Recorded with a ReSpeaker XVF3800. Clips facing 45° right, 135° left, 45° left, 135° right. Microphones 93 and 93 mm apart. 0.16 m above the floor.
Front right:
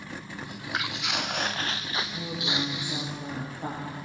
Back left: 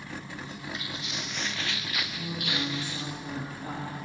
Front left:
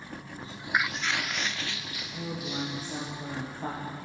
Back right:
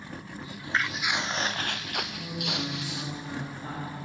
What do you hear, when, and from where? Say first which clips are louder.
0.4 s footsteps: front right 4 dB, front left 1 dB; 10° right, 0.6 m; by 3.1 s 120° right, 1.6 m
2.1 s a woman speaking: front right 1 dB, even; 5° right, 5.5 m